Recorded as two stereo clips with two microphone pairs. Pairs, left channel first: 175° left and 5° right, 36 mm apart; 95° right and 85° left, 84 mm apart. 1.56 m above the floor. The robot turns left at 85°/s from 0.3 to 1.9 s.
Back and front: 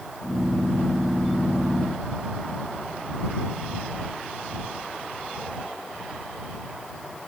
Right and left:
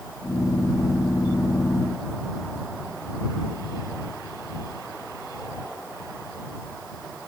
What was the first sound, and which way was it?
Only background noise.